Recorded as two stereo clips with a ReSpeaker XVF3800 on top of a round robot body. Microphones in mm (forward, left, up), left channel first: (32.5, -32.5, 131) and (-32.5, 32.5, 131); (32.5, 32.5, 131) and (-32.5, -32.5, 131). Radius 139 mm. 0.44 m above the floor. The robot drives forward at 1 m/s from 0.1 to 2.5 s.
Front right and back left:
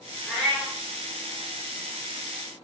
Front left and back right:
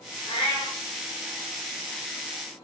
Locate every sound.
0.3 s a cat meowing: 30° left, 4.5 m; by 0.8 s 35° left, 4 m